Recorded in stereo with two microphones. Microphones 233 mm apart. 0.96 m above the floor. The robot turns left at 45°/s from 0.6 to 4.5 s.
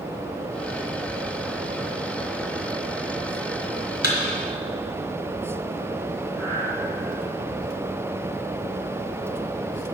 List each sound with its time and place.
4.0 s a thud: 40° left (ahead or behind), 2.5 m; by 4.2 s 35° left (ahead or behind), 2.5 m
6.4 s breathing: 75° right (ahead or behind), 3 m